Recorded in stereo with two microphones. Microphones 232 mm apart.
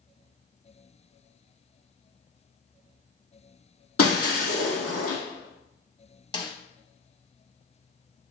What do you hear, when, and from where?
4.0 s breaking glass: 80° left, 1.4 m
6.3 s a snare drum: 20° left (ahead or behind), 0.5 m